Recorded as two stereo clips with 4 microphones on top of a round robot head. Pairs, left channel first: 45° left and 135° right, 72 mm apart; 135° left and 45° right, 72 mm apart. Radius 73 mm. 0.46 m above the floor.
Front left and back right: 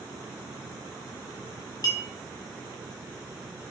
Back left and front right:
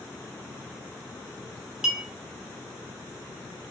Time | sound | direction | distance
1.8 | a clink | 40° left | 1.2 m